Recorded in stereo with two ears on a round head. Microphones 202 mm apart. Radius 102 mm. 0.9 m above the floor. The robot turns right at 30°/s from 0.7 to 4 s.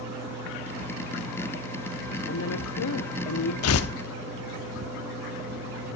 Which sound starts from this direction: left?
Tearing paper, at 3.6 s.